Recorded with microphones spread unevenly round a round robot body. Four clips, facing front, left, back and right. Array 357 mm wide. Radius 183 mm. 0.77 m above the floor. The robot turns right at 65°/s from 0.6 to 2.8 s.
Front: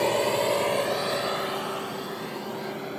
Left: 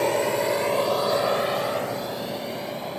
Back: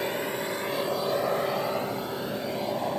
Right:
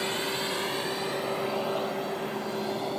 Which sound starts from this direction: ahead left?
A drone, at 0.0 s.